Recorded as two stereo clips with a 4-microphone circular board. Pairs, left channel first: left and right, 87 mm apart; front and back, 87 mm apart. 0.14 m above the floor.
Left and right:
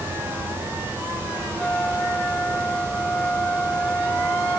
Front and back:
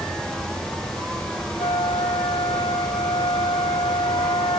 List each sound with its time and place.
1.6 s a flute: 15° left